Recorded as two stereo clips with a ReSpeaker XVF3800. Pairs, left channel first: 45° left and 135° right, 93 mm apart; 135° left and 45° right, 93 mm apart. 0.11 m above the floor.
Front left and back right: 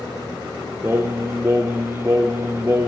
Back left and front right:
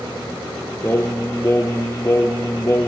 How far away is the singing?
About 0.6 m.